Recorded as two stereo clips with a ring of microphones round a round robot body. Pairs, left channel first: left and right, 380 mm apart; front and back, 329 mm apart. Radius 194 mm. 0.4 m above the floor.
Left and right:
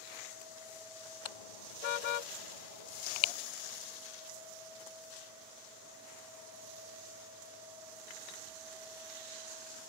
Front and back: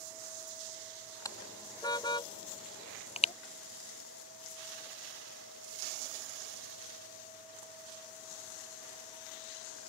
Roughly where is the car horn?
Left.